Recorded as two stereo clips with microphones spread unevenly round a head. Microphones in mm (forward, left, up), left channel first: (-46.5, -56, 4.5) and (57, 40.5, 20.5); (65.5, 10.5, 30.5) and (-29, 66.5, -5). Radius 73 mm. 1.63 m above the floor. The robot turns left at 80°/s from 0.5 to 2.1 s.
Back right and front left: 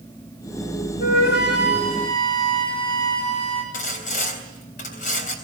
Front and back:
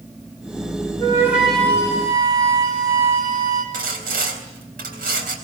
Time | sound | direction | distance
1.0 | a flute | 95° right | 6 m
3.7 | sawing | straight behind | 3.5 m